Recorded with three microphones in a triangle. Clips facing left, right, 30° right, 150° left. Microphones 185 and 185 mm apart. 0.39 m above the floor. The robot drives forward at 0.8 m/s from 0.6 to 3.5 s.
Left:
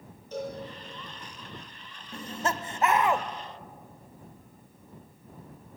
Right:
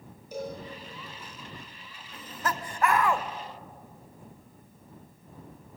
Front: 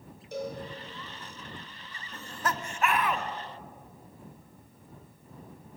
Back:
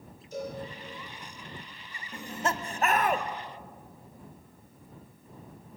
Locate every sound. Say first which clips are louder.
0.3 s a cowbell: left 1 dB, front 1 dB; 10° right, 9.5 m
2.1 s laughter: left 2 dB, back 2 dB; 85° left, 0.9 m; by 3.3 s 155° left, 1.3 m